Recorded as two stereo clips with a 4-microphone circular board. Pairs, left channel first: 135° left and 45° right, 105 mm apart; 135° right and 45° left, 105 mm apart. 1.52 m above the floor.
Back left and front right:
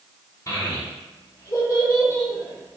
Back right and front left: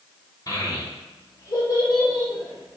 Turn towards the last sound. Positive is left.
turn(degrees=-175)